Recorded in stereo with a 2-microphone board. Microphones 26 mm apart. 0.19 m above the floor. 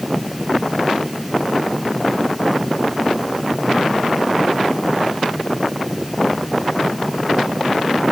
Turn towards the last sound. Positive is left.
No sound to turn to.